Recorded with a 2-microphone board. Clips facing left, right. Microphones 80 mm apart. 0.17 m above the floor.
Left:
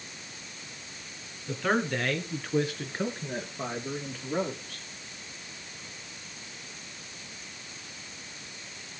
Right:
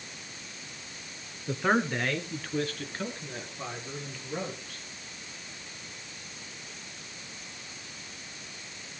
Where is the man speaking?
25° right (ahead or behind), 2.5 m; by 4.8 s 40° left (ahead or behind), 5 m.